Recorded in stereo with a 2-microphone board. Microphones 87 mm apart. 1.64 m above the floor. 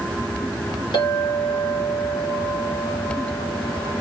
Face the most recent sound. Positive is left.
turn(degrees=75)  # may be behind; listen again after turning